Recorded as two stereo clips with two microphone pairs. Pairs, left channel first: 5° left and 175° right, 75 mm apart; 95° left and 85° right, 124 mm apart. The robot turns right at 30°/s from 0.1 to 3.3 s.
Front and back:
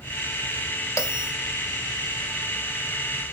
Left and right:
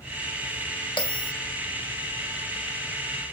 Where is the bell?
50° left, 0.5 m; by 1.3 s 60° left, 0.5 m.